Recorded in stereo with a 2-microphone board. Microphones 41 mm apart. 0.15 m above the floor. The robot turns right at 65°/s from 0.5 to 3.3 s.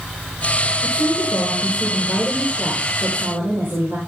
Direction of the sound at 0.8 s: 100° left.